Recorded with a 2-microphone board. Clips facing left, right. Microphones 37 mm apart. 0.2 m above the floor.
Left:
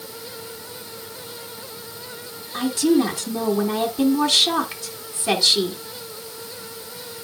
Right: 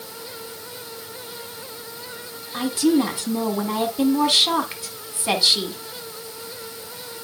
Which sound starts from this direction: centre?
A woman speaking, at 2.5 s.